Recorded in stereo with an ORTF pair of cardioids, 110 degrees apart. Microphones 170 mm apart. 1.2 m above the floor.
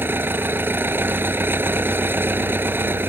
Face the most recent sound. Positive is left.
turn(degrees=-10)